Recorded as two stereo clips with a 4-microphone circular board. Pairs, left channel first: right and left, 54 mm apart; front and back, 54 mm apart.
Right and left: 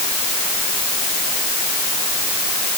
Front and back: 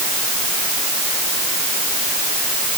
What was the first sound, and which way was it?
Only background noise.